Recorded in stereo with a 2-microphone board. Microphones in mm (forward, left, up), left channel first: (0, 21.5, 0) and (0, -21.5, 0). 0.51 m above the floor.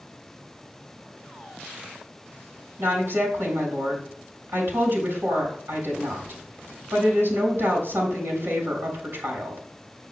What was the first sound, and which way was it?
A woman speaking, 65° right (ahead or behind).